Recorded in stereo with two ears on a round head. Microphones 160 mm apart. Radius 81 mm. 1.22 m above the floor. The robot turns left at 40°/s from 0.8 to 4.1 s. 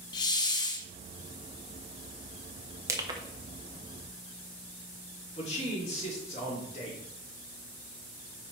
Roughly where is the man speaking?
Left.